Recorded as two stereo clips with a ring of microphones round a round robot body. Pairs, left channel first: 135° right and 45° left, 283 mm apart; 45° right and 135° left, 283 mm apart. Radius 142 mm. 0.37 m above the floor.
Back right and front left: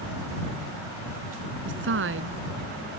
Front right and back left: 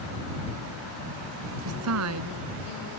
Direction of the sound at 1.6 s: 95° left.